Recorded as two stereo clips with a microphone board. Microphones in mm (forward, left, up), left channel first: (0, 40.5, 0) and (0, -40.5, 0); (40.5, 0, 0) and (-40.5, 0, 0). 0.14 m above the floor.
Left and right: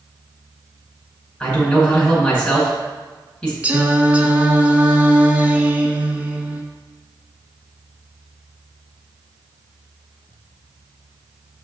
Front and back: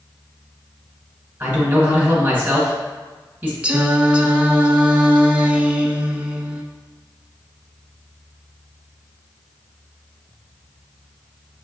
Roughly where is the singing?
Behind right.